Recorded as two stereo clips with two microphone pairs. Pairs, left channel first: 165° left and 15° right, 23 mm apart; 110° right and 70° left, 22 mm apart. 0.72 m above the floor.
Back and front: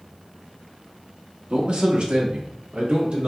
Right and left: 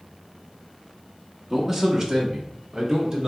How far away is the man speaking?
About 1.3 m.